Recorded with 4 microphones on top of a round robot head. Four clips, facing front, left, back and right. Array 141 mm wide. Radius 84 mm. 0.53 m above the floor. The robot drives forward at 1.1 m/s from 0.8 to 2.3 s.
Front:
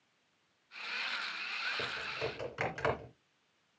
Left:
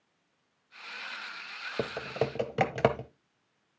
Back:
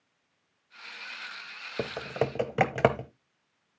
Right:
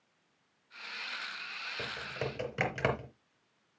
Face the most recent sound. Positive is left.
turn(degrees=155)